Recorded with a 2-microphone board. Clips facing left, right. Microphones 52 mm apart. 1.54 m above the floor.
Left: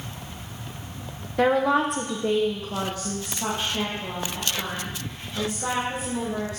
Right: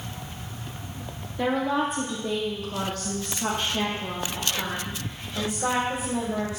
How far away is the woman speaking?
About 1.0 m.